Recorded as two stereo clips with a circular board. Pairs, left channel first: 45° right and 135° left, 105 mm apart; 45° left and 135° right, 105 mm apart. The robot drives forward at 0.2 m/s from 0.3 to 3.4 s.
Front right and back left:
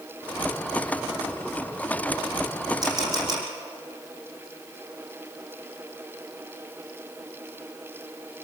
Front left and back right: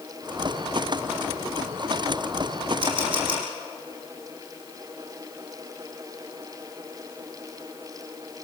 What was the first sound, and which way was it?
A camera shutter, 175° right.